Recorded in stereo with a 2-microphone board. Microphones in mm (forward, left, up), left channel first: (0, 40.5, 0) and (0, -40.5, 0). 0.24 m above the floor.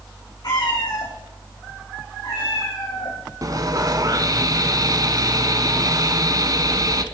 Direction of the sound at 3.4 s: 50° right (ahead or behind).